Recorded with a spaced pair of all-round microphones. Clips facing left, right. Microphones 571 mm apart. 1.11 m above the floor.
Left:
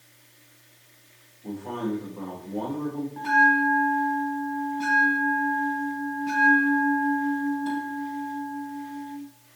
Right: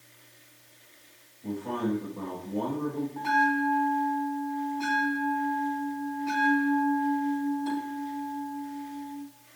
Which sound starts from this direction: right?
A man speaking, at 1.4 s.